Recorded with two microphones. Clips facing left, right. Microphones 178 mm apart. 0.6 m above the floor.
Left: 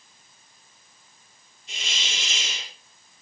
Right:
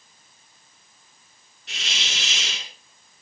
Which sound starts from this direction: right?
A hiss, at 1.7 s.